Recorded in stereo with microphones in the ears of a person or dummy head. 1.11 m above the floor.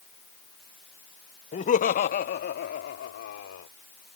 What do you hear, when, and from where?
1.5 s laughter: 30° left (ahead or behind); by 3.7 s 55° left (ahead or behind)